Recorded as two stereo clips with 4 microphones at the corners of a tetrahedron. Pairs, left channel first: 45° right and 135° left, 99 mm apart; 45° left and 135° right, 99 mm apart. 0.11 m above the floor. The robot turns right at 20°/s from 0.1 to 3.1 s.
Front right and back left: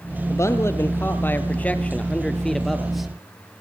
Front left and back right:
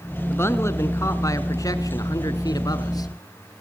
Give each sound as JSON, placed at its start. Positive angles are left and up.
{"t": 0.3, "sound": "a man speaking", "azimuth_deg": -5, "distance_m": 1.4}